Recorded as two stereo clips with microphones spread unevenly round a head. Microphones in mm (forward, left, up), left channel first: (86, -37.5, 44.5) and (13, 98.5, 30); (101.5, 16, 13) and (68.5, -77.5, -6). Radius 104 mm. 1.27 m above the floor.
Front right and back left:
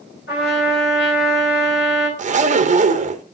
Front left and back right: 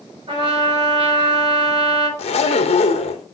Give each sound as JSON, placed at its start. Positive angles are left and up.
{"t": 0.3, "sound": "a trumpet", "azimuth_deg": -85, "distance_m": 6.5}
{"t": 2.2, "sound": "a zipper", "azimuth_deg": 75, "distance_m": 0.9}